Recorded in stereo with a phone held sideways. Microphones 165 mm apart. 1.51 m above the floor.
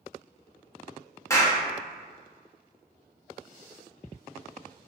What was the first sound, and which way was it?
A clap, 15° left (ahead or behind).